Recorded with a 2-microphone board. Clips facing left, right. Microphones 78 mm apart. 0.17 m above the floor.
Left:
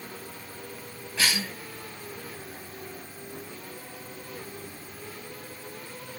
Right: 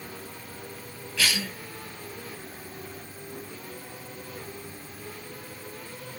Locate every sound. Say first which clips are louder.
1.2 s a cough: even; 35° left (ahead or behind), 1.9 m